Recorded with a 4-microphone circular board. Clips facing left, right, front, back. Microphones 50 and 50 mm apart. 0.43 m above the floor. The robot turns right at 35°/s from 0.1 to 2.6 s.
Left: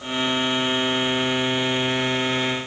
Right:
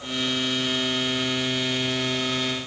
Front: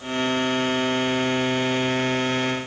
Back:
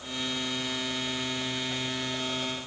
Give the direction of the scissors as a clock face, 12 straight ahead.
No scissors in this recording.